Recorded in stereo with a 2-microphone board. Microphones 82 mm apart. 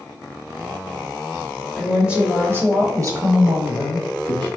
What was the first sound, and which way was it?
A woman speaking, centre (ahead or behind).